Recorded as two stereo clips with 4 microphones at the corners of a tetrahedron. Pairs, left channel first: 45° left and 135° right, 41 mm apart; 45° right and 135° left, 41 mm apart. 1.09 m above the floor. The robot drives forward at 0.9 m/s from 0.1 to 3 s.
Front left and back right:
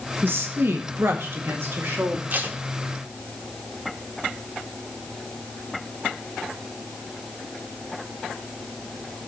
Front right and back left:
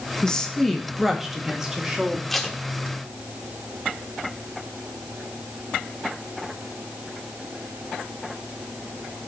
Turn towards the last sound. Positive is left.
turn(degrees=-155)